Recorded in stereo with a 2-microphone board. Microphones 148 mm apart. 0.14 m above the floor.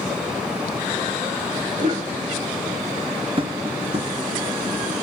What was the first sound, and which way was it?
A cough, 65° right (ahead or behind).